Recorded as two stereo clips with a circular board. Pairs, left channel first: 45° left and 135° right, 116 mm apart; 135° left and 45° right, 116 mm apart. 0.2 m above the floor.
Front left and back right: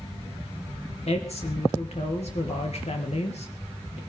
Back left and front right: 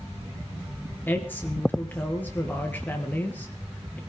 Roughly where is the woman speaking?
Ahead left.